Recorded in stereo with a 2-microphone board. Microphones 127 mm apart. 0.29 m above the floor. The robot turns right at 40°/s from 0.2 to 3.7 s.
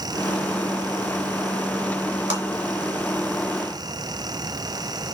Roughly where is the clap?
Right.